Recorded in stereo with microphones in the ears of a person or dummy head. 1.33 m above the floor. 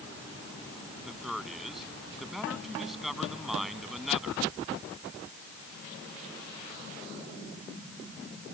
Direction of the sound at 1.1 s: 5° right (ahead or behind).